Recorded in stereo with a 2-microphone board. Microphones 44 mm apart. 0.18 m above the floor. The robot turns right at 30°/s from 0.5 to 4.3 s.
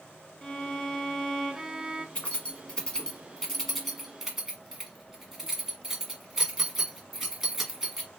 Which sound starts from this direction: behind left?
A violin, at 0.4 s.